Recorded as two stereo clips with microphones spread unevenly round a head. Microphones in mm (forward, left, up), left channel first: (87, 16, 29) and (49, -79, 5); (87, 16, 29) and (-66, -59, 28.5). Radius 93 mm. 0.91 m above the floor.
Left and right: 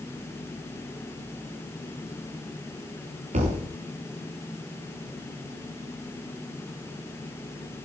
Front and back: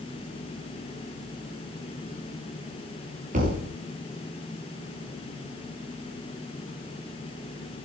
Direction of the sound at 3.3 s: 110° right.